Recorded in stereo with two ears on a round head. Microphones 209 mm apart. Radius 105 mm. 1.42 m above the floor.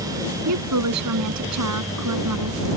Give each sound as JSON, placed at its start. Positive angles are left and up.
{"t": 0.5, "sound": "a woman speaking", "side_deg": -90}